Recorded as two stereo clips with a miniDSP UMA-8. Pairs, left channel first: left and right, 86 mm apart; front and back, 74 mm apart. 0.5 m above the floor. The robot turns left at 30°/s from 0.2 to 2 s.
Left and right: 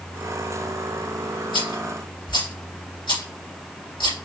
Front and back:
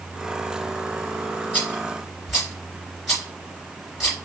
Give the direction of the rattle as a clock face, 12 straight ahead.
9 o'clock.